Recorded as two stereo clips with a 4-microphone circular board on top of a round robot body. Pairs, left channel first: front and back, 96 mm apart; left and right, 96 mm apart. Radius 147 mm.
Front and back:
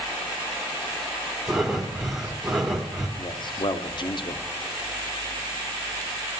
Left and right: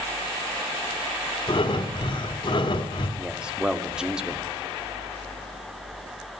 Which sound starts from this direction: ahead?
A man speaking, at 3.2 s.